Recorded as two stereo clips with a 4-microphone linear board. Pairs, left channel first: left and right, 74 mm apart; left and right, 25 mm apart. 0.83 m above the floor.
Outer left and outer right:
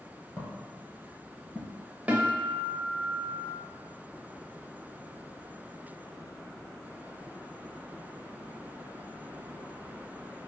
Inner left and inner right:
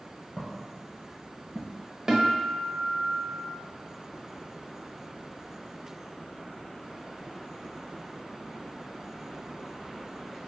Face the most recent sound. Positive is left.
turn(degrees=-15)  # may be behind; listen again after turning